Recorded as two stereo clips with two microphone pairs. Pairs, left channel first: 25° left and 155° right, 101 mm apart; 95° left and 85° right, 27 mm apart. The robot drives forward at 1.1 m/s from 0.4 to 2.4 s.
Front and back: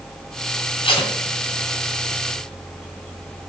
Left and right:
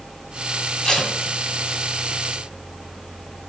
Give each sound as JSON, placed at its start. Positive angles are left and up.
{"t": 0.8, "sound": "tape being pulled", "azimuth_deg": 30, "distance_m": 1.9}